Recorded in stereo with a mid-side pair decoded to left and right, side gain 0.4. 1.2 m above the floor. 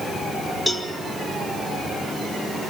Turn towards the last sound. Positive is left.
turn(degrees=20)